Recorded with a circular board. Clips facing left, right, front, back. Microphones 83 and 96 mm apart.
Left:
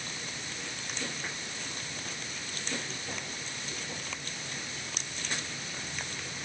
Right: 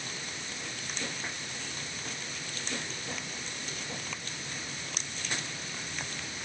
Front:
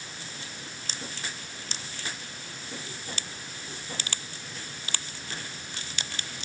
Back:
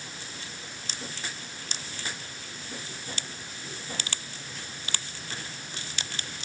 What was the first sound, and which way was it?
Only background noise.